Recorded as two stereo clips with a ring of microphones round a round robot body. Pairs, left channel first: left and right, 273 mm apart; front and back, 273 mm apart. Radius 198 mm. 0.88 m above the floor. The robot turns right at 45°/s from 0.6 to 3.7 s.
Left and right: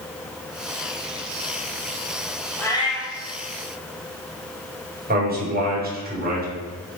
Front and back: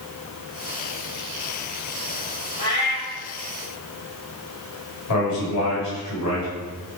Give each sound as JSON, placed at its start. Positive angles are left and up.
{"t": 2.6, "sound": "a cat meowing", "azimuth_deg": 10, "distance_m": 4.0}
{"t": 5.1, "sound": "a man speaking", "azimuth_deg": -35, "distance_m": 5.0}